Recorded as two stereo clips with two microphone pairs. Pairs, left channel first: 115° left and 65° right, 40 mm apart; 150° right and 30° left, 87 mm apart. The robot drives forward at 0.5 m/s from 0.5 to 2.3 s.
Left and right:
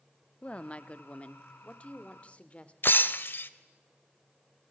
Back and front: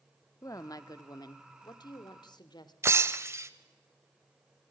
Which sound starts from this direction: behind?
A woman speaking, at 0.4 s.